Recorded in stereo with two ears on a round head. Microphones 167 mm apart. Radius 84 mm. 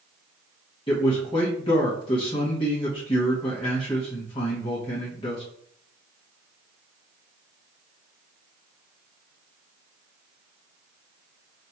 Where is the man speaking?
30° left (ahead or behind), 0.8 m.